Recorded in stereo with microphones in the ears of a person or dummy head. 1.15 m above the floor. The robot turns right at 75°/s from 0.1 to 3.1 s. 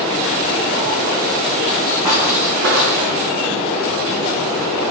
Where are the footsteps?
25° right (ahead or behind), 3.5 m; by 2.9 s 70° right (ahead or behind), 3.5 m.